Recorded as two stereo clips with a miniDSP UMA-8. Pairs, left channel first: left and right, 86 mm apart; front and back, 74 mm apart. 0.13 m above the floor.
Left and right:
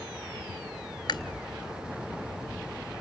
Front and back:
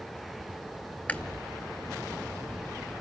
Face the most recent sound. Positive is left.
turn(degrees=70)